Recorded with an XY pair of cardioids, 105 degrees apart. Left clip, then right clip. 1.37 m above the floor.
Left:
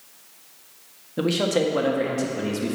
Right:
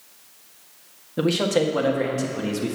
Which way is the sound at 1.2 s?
10° right.